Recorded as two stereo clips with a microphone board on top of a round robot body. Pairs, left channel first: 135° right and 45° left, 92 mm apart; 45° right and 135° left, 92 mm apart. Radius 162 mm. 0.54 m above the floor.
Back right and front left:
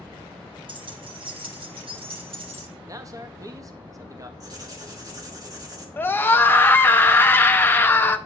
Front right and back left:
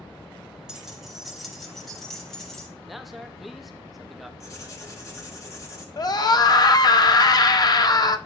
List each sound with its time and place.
0.7 s keys jangling: 55° left, 1.1 m; by 2.7 s 40° left, 2 m
2.9 s a man speaking: 45° left, 0.7 m
4.4 s writing: 5° left, 2 m
6.0 s a scream: 75° right, 0.9 m